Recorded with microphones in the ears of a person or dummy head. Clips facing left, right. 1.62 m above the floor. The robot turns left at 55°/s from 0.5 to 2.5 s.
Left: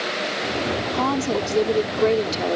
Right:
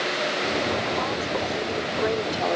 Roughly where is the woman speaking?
Left.